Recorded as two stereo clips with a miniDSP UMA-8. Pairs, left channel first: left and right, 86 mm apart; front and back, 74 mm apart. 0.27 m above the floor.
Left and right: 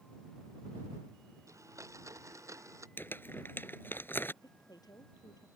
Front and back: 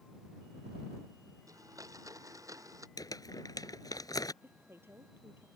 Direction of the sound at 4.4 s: 125° left.